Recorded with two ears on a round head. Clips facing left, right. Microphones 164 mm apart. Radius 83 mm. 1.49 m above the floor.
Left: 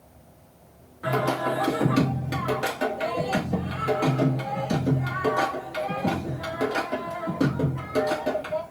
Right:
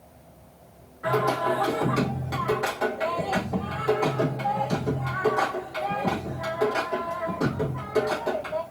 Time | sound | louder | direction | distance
1.0 | singing | right 1 dB | 40° left (ahead or behind) | 2 m